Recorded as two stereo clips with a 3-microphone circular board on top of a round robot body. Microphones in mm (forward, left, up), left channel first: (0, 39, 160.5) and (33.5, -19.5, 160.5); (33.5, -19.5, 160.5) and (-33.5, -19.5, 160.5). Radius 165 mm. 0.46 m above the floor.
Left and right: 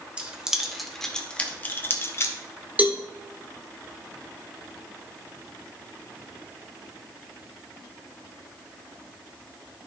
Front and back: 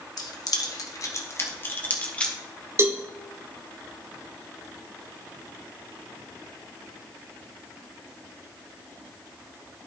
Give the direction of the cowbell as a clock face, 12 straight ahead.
4 o'clock.